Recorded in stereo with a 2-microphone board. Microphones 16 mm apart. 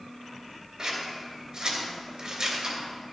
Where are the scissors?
50° right (ahead or behind), 3 m.